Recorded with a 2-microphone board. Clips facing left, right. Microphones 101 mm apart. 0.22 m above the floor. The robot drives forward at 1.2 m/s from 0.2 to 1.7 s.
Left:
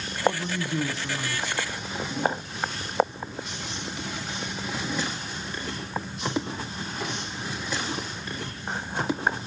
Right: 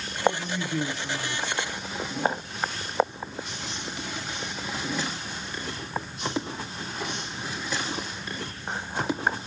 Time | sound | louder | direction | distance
0.2 | a man speaking | even | 25° left (ahead or behind) | 1.3 m